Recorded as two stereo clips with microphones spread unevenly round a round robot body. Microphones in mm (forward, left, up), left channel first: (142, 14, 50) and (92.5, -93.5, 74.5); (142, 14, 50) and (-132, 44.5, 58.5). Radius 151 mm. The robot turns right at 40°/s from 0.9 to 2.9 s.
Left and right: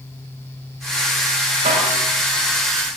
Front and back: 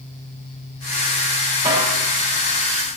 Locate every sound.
1.6 s a snare drum: 110° right, 3.5 m; by 1.9 s 95° right, 3.5 m